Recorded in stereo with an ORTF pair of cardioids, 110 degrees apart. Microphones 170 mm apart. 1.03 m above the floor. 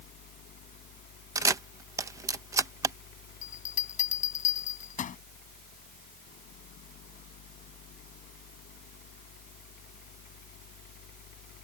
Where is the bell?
50° left.